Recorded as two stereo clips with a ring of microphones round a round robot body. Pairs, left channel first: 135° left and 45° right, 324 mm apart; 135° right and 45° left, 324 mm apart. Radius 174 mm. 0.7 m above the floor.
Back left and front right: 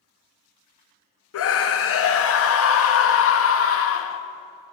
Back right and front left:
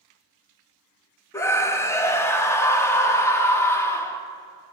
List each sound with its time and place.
1.3 s a scream: 145° left, 0.6 m